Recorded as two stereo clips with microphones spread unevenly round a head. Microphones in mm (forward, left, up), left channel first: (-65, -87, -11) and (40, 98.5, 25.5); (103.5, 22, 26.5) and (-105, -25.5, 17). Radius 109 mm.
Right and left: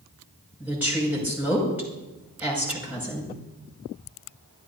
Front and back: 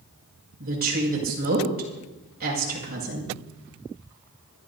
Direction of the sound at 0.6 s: 145° left.